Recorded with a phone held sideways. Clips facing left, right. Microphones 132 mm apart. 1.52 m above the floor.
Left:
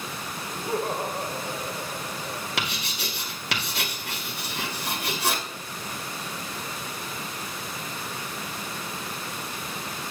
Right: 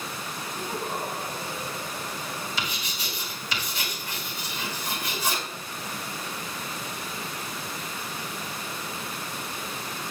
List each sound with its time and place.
0.5 s laughter: 85° left, 2 m
2.6 s writing: 80° left, 2.5 m